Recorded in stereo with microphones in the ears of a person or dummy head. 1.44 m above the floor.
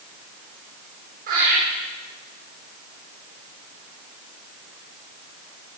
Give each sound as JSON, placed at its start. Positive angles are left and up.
{"t": 1.3, "sound": "laughter", "side_deg": -50, "distance_m": 8.0}